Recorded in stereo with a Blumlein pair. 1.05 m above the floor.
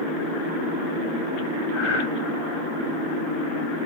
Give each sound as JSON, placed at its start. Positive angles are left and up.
{"t": 1.7, "sound": "breathing", "azimuth_deg": 35, "distance_m": 3.5}